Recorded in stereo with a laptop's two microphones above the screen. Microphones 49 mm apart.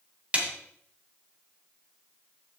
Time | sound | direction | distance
0.3 | a snare drum | 25° right (ahead or behind) | 2.5 m